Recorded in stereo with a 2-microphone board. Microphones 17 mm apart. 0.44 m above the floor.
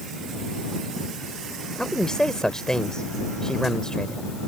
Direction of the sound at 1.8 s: 40° left (ahead or behind).